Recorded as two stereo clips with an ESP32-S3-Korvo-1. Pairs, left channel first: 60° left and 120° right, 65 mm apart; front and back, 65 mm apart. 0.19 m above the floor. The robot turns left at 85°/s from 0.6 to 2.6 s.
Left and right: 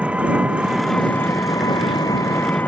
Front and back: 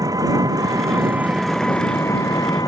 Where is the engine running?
170° left; by 2.7 s straight ahead.